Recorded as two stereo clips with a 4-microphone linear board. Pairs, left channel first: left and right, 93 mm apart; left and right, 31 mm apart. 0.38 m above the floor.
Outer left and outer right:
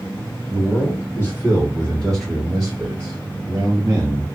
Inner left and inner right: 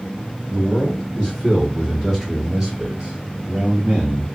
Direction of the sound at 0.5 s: 35° left (ahead or behind).